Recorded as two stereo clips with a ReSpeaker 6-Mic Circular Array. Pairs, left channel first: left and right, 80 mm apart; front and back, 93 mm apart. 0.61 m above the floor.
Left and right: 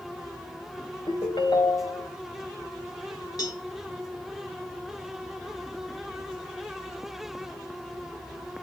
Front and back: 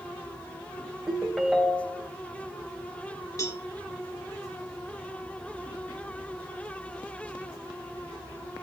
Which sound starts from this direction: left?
A ringtone, at 1.1 s.